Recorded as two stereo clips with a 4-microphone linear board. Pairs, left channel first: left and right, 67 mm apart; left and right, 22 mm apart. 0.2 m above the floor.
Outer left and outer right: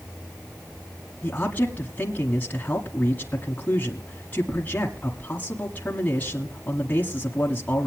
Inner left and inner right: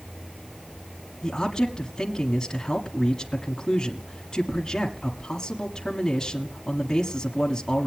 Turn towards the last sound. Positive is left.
turn(degrees=20)  # may be behind; listen again after turning